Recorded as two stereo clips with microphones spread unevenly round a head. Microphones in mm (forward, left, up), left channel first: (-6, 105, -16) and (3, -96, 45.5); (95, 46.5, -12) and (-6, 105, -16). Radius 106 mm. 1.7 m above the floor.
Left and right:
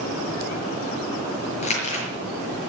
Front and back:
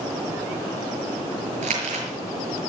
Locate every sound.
1.6 s crumpling: 155° left, 6 m